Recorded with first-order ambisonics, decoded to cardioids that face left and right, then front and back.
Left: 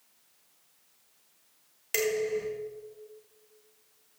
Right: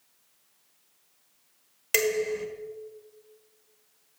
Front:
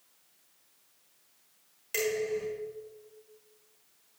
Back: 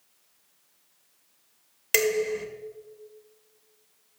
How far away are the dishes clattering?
About 1.4 m.